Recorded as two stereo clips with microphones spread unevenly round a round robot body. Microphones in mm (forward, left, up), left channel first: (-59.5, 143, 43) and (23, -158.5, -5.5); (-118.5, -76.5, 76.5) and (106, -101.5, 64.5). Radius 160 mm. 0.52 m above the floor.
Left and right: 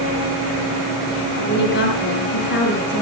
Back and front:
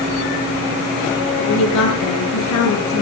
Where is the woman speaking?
165° left, 8 m.